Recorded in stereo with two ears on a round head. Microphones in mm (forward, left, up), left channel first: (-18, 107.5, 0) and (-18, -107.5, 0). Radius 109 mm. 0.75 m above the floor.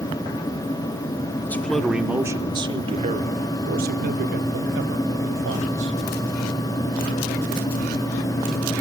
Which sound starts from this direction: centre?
A man speaking, at 1.4 s.